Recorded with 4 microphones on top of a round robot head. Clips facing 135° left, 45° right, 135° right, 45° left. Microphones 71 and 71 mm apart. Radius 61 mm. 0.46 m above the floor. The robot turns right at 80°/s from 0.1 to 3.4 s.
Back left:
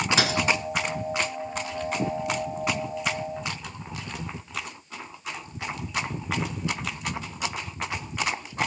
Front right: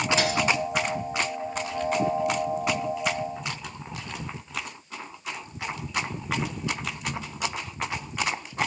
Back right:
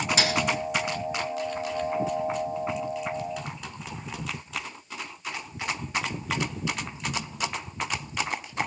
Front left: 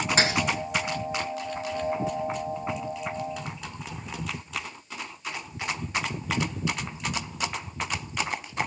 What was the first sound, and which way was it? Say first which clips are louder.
A thud: even, front left 2 dB; 105° left.